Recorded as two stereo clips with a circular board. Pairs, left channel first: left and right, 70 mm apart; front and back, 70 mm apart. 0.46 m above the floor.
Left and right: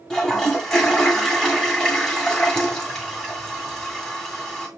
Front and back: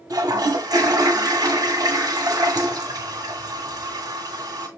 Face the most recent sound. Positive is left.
turn(degrees=175)